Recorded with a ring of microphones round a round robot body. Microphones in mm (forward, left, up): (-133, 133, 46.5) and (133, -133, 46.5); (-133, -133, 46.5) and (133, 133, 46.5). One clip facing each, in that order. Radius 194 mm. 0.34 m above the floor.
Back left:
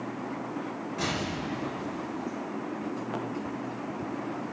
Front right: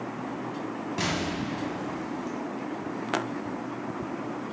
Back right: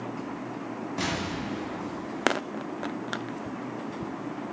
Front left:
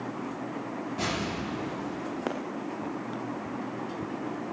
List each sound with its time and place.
1.0 s an explosion: 70° right, 1.4 m